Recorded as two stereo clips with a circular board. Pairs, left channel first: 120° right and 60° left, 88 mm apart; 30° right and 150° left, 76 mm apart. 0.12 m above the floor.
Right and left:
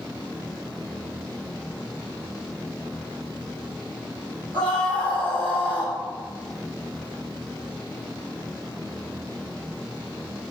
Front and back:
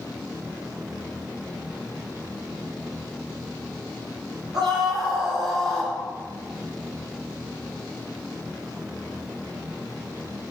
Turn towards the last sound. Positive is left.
turn(degrees=180)